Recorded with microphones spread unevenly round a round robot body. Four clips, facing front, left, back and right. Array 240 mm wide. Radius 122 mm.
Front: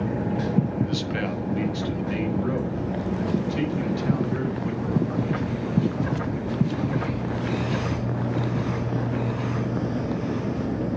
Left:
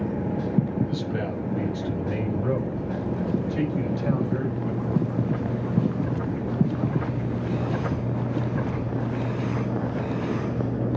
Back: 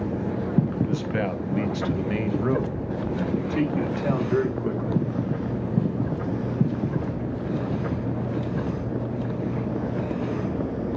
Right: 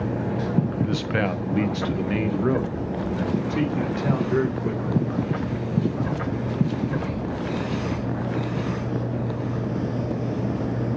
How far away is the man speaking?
About 1.2 m.